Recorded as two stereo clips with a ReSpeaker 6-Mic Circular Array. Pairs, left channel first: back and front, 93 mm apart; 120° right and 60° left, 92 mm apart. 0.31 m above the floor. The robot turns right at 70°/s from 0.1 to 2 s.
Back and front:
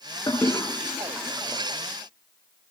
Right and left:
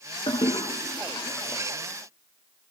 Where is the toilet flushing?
135° right, 4.5 m; by 1.6 s 40° right, 4.5 m.